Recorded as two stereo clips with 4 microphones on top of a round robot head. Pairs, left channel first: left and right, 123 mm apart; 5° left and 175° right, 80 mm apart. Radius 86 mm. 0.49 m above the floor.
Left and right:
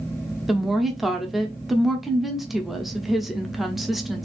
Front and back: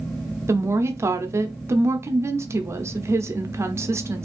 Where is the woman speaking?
Straight behind, 0.8 m.